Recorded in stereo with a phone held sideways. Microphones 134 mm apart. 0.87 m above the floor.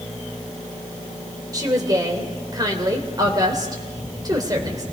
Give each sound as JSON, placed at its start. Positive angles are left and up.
{"t": 1.5, "sound": "a woman speaking", "side_deg": -30, "distance_m": 3.0}